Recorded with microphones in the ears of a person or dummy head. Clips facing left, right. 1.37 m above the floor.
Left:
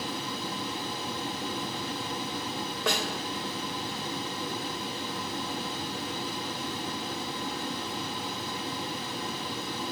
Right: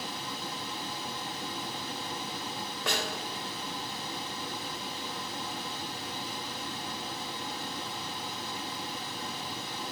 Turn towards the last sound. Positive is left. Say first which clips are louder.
# left 3 dB
turn(degrees=70)  # may be behind; listen again after turning